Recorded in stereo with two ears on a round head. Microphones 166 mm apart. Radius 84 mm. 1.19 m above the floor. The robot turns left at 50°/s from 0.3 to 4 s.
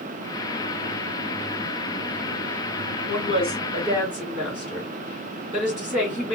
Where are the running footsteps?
I don't hear running footsteps.